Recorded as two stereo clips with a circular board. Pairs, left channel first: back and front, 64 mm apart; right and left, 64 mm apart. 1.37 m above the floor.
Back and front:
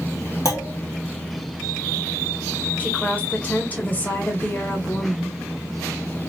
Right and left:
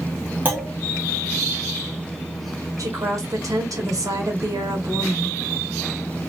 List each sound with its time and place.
0.5 s a clunk: 150° left, 1.4 m
2.8 s a woman speaking: 115° left, 1.2 m